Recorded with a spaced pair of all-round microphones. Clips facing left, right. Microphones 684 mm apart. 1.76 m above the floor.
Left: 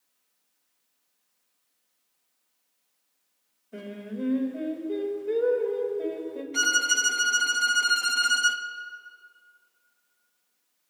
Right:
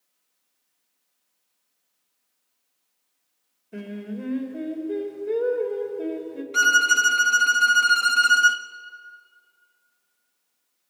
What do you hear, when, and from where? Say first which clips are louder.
3.7 s singing: right 3 dB; 50° right (ahead or behind), 2.5 m
6.5 s a violin: right 3 dB; 40° right (ahead or behind), 0.8 m